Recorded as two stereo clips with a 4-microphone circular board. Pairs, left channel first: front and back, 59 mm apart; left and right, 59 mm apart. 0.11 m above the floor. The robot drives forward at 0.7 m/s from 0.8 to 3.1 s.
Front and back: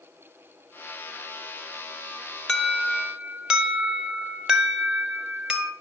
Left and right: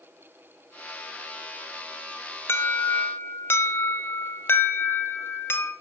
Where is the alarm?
80° left, 1.3 m; by 5.7 s 105° left, 1.3 m.